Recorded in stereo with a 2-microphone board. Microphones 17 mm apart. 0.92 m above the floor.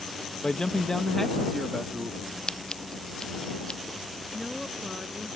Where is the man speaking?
55° left (ahead or behind); by 2.4 s 5° right (ahead or behind).